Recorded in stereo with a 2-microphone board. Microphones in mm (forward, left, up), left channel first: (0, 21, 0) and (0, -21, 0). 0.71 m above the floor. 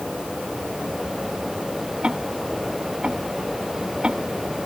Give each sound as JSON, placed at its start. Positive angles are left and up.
{"t": 2.0, "sound": "ticking", "side_deg": -25}